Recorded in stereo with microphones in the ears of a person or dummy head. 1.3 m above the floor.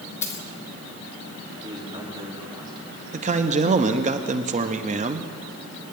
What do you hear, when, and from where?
0.2 s a dropped coin: 10° left (ahead or behind), 1.2 m
1.6 s a man speaking: 30° right (ahead or behind), 3 m
3.1 s a man speaking: 30° right (ahead or behind), 0.7 m